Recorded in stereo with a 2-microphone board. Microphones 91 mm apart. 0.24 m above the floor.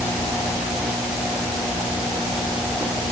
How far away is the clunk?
No clunk in this recording.